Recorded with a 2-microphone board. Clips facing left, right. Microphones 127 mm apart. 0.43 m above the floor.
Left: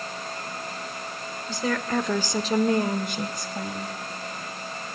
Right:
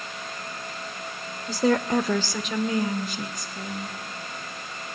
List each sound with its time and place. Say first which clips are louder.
1.5 s a woman speaking: right 5 dB; 45° right (ahead or behind), 1.3 m; by 4.0 s 75° left (ahead or behind), 2.5 m